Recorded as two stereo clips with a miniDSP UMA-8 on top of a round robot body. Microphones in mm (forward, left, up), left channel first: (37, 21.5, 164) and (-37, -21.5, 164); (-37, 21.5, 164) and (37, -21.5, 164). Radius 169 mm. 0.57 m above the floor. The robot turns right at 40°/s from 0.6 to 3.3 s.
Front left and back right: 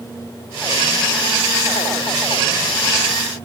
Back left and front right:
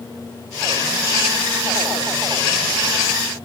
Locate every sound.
Only background noise.